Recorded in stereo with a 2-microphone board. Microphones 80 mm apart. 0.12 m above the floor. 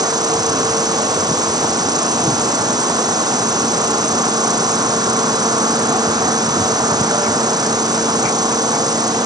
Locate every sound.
0.0 s an insect: 60° right (ahead or behind)